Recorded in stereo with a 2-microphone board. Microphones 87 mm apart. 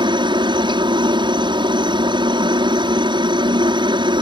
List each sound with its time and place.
0.0 s a helicopter: 65° right (ahead or behind)